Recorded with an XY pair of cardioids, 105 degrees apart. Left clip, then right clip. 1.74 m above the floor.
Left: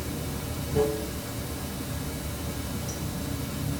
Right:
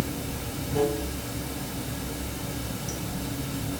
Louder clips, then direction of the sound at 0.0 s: Right 2 dB; 20° right.